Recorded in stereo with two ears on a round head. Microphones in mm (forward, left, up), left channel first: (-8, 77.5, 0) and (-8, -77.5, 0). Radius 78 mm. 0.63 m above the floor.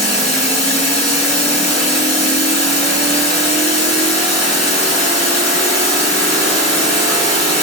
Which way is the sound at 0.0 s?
40° left (ahead or behind).